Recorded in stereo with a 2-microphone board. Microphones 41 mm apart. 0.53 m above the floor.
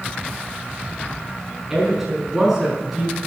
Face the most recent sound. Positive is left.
turn(degrees=-5)  # may be behind; listen again after turning